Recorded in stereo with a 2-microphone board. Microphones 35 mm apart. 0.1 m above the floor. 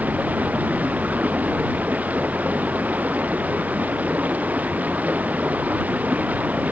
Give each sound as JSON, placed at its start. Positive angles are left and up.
{"t": 0.0, "sound": "running water", "side_deg": -55}